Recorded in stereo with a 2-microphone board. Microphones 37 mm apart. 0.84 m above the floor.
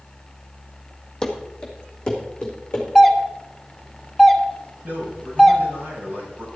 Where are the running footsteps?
20° left (ahead or behind), 1.9 m; by 2.9 s 25° left (ahead or behind), 4 m.